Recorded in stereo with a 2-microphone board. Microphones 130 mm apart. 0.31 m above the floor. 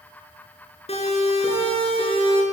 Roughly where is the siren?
Left.